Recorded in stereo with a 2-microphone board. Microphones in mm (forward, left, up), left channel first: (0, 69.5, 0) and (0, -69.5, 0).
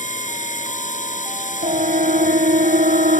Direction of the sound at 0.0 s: 60° left (ahead or behind).